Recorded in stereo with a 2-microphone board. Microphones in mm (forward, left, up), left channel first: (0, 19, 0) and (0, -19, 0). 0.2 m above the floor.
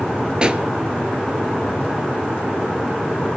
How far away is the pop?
About 0.5 m.